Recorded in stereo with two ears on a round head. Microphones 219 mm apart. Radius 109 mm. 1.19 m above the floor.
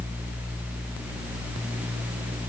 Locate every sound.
Only background noise.